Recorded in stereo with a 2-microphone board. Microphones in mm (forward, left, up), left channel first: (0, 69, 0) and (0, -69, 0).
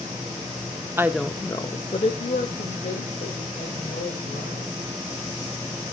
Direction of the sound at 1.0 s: 15° right (ahead or behind).